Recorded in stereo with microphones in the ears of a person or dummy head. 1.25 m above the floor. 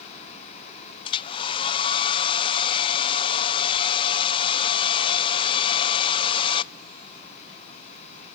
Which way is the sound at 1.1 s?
25° left (ahead or behind).